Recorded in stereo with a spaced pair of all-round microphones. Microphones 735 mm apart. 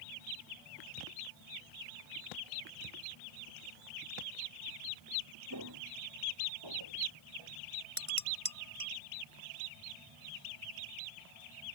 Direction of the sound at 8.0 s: 40° right (ahead or behind).